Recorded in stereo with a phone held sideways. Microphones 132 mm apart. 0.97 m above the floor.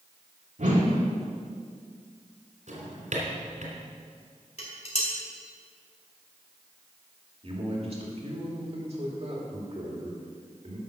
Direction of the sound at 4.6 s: 55° left (ahead or behind).